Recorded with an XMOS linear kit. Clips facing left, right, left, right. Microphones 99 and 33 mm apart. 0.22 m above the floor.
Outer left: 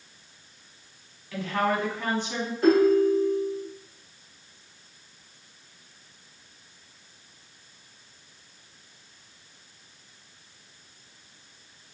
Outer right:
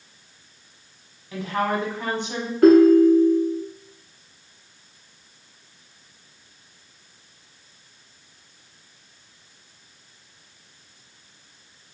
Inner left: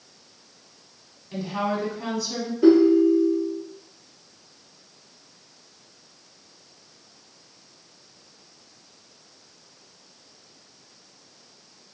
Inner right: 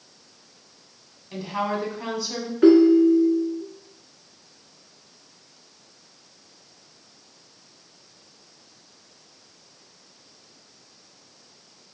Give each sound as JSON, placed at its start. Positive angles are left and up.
{"t": 1.3, "sound": "a woman speaking", "side_deg": -20, "distance_m": 1.3}
{"t": 2.6, "sound": "a ringtone", "side_deg": -60, "distance_m": 1.3}